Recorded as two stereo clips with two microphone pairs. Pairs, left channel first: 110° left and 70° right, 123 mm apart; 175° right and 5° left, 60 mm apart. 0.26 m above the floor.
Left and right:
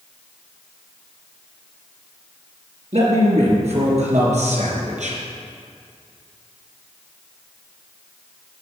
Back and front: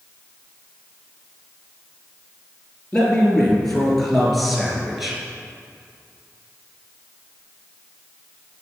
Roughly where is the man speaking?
Right.